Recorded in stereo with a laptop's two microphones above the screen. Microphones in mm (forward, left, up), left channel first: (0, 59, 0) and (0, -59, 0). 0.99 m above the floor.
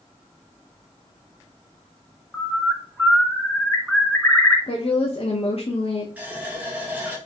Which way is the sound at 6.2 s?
10° right (ahead or behind).